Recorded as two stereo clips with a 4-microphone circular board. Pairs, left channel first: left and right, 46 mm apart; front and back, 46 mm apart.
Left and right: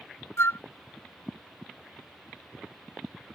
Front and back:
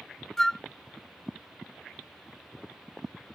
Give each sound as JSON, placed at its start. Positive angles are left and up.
{"t": 0.4, "sound": "a flute", "azimuth_deg": 80}